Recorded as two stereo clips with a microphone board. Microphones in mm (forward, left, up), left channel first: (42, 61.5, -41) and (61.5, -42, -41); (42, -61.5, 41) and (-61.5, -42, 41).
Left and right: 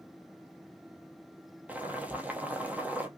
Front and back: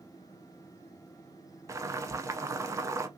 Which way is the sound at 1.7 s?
140° right.